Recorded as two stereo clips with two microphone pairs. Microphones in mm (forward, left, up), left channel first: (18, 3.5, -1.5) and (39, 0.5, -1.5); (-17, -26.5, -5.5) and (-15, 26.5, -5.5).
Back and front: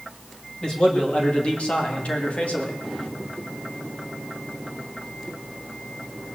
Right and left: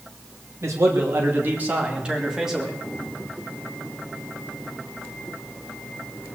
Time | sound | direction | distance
0.6 | a man speaking | 115° left | 2.5 m